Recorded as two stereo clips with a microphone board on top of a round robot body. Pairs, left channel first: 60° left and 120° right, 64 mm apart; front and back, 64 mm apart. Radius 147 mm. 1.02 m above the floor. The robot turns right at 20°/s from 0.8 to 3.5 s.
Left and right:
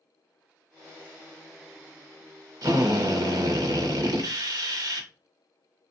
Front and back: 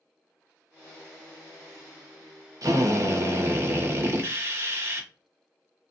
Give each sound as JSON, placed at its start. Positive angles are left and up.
{"t": 2.6, "sound": "a drill", "azimuth_deg": -145, "distance_m": 0.9}